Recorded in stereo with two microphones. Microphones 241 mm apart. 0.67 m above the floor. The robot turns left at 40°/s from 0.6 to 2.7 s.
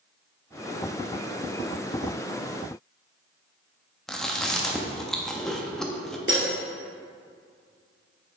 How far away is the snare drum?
No snare drum in this recording.